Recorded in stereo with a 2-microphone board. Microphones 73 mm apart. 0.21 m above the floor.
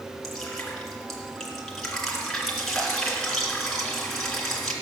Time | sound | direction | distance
0.2 | dripping | 5° left (ahead or behind) | 3 m